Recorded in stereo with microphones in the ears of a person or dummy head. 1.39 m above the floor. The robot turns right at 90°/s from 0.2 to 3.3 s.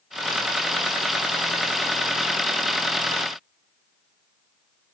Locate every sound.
Only background noise.